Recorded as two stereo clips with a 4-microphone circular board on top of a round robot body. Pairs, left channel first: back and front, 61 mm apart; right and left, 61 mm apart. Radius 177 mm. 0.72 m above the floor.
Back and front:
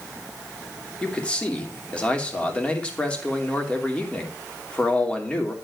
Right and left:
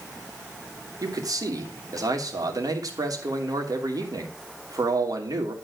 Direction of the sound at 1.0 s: 110° left.